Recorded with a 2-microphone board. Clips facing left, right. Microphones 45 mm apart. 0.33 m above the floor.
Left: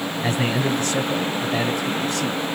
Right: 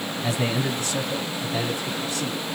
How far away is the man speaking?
About 2 m.